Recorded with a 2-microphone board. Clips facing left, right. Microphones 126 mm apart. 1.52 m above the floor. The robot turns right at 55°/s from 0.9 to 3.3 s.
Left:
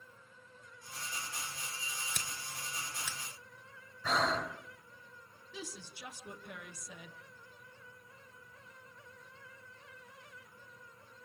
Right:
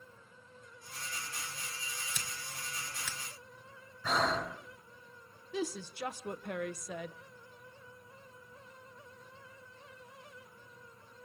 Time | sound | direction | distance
2.1 | scissors | 60° left (ahead or behind) | 3 m
4.0 | breathing | centre (ahead or behind) | 4 m
5.5 | a woman speaking | 65° right (ahead or behind) | 0.9 m